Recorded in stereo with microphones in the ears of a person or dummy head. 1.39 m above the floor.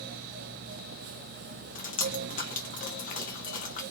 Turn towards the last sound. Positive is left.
turn(degrees=35)  # may be behind; listen again after turning